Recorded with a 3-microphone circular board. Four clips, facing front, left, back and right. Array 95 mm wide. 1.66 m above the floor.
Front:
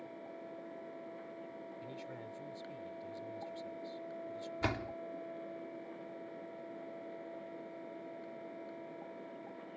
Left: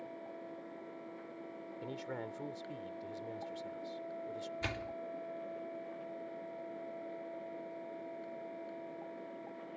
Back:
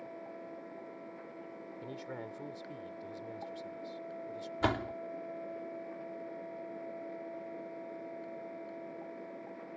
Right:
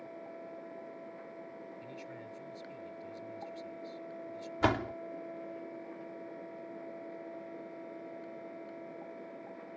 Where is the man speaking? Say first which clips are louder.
Left 4 dB, back 4 dB; 125° left.